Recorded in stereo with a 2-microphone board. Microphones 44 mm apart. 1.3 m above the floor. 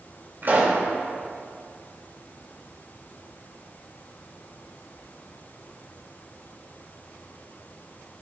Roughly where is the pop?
Right.